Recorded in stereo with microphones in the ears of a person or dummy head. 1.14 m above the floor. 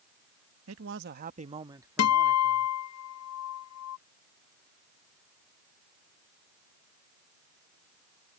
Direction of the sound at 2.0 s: 70° left (ahead or behind).